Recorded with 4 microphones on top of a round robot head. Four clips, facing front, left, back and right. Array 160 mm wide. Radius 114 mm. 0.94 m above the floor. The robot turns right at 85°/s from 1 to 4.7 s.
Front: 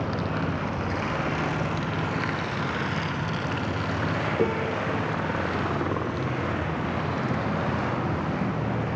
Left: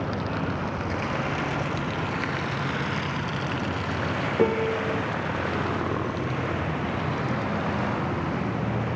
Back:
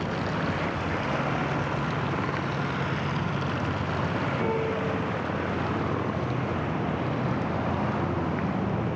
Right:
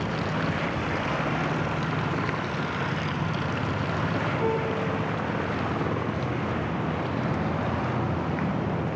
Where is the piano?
70° left, 3.5 m; by 5.1 s 95° left, 3.5 m.